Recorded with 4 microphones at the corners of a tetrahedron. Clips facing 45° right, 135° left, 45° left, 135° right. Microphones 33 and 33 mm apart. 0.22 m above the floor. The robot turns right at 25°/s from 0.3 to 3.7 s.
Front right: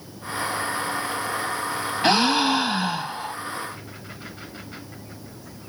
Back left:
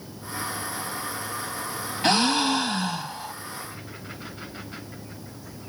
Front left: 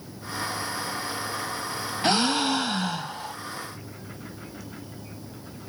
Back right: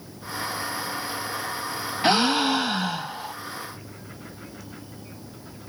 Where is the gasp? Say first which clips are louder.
Front right 2 dB, back right 3 dB; 100° right, 0.8 m; by 3.4 s 65° right, 0.8 m.